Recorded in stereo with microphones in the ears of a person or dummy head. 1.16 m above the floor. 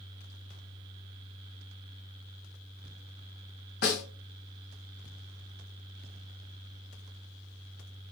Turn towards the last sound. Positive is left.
turn(degrees=55)  # may be behind; listen again after turning